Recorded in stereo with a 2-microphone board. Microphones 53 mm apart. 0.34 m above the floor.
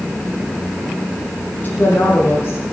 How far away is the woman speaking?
About 9 m.